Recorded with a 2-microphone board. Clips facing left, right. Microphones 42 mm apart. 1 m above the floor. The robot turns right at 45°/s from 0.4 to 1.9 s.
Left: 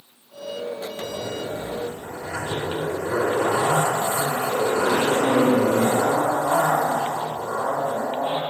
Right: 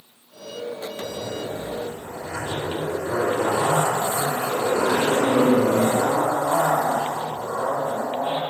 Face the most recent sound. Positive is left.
turn(degrees=165)